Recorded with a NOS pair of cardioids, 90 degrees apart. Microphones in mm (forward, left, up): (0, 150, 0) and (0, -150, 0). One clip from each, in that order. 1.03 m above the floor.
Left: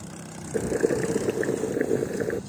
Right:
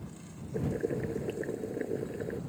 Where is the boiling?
70° left.